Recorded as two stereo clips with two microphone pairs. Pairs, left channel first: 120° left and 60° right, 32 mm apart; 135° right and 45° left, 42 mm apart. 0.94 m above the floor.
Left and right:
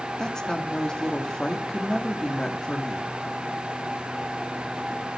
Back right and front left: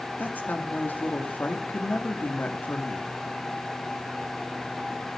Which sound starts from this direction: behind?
A woman speaking, at 0.2 s.